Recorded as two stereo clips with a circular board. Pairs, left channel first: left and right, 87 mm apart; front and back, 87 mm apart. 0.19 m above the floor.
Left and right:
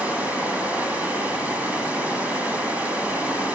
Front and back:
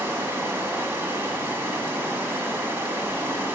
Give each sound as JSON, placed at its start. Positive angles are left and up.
{"t": 0.0, "sound": "running water", "azimuth_deg": -145, "distance_m": 1.0}